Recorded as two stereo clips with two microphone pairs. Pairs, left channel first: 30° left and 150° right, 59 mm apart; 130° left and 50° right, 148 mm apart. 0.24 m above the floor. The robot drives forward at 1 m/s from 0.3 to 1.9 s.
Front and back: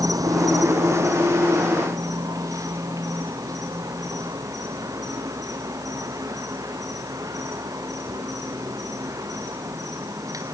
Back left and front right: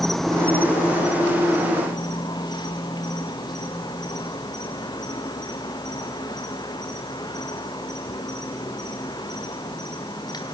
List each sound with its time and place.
0.0 s an insect: 145° right, 0.8 m; by 10.6 s 170° right, 2.5 m